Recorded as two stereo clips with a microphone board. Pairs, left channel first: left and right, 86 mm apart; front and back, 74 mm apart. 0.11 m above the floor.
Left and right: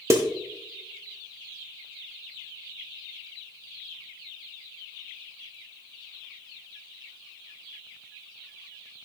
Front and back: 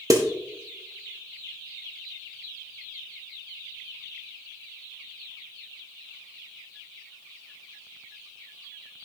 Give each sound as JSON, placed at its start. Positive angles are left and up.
{"t": 0.1, "sound": "a snare drum", "azimuth_deg": -145, "distance_m": 1.8}